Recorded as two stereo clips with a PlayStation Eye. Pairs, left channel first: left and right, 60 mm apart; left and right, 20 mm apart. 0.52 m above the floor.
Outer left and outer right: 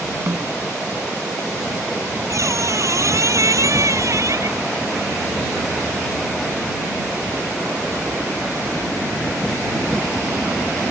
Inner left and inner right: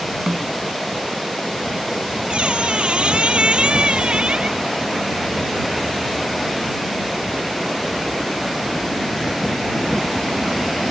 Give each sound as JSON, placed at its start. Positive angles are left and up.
{"t": 0.3, "sound": "a snare drum", "side_deg": -45}
{"t": 2.3, "sound": "a squeak", "side_deg": -60}